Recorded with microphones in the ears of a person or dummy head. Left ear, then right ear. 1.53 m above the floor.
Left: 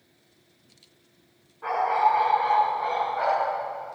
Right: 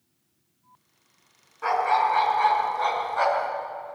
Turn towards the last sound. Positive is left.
turn(degrees=-75)  # may be behind; listen again after turning